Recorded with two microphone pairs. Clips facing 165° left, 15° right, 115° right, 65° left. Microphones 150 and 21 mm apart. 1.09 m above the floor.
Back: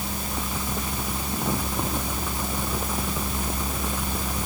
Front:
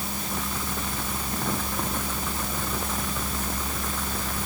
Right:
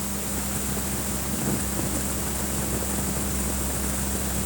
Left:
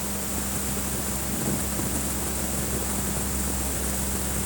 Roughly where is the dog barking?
I don't hear a dog barking.